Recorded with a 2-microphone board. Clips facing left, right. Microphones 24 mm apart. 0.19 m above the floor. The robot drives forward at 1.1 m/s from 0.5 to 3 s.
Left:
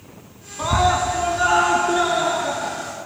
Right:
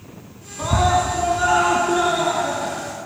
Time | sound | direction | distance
0.6 | a scream | 20° left (ahead or behind) | 1.7 m